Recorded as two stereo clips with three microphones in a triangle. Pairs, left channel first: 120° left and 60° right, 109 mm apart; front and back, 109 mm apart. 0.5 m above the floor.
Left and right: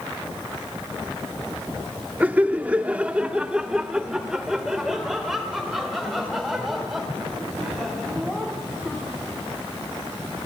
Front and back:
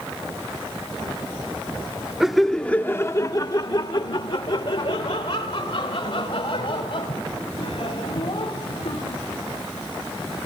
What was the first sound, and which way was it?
Laughter, 105° right.